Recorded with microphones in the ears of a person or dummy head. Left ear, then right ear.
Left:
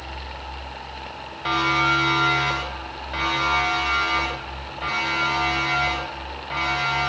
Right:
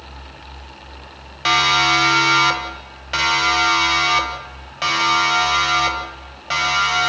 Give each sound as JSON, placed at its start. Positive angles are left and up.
{"t": 1.4, "sound": "a siren", "side_deg": -50, "distance_m": 5.5}